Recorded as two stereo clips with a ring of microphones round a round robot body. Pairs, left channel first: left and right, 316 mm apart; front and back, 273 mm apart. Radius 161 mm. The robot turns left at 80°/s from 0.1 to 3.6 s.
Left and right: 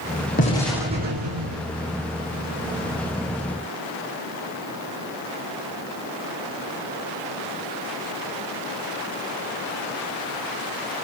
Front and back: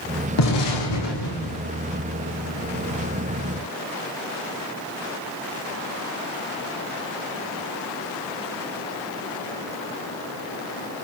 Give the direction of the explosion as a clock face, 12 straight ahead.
11 o'clock.